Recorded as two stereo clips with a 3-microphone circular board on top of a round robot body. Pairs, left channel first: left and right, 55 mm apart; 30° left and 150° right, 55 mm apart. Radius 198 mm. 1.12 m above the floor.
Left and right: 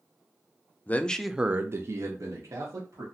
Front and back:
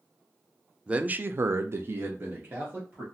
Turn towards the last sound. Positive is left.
turn(degrees=-90)